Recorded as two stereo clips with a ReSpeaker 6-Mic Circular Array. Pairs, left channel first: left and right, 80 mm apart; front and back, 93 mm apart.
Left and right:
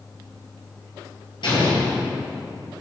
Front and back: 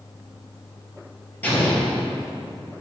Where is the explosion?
70° left, 2.5 m.